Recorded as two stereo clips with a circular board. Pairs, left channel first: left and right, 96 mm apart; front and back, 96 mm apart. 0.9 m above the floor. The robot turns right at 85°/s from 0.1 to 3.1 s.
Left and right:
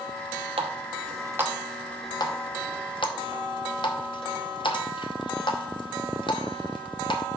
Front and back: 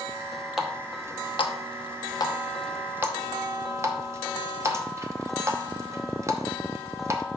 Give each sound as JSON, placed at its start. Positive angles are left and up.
{"t": 0.6, "sound": "a running tap", "azimuth_deg": -95, "distance_m": 0.8}